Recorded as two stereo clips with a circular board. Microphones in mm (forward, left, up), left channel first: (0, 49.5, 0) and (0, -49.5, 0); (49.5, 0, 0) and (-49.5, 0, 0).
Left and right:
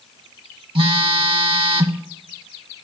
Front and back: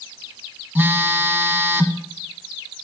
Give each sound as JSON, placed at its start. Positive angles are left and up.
{"t": 0.8, "sound": "a phone buzzing", "azimuth_deg": -110, "distance_m": 0.6}